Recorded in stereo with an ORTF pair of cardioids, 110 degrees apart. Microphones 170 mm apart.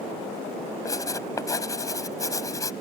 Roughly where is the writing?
Ahead.